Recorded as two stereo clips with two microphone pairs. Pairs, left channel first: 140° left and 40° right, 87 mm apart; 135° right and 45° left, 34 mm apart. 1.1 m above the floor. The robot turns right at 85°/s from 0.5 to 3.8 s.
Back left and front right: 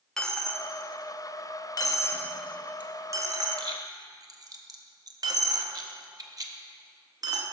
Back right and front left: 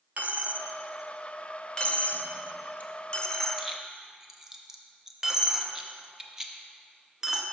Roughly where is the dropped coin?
Ahead left.